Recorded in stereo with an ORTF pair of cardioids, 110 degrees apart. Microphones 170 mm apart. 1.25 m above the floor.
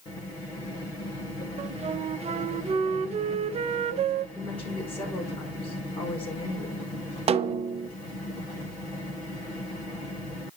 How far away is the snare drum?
About 0.6 m.